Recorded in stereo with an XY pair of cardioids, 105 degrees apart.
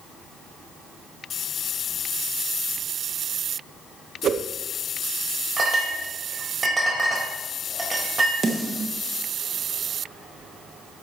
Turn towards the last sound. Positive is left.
turn(degrees=-35)